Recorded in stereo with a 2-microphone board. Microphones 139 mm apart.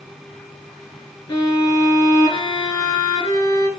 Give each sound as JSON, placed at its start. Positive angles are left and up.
{"t": 1.3, "sound": "a violin", "side_deg": 25, "distance_m": 1.8}